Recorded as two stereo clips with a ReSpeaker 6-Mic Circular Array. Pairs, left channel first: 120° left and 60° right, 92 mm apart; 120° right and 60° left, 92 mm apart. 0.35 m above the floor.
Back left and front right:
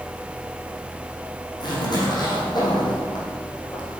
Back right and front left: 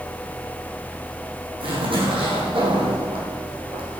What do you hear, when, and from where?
1.6 s a zipper: 80° left, 5 m